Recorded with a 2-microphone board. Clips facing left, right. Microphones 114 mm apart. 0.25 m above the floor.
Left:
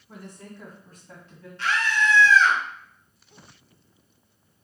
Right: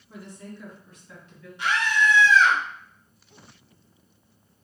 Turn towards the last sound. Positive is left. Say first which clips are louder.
# right 1 dB
turn(degrees=-15)  # may be behind; listen again after turning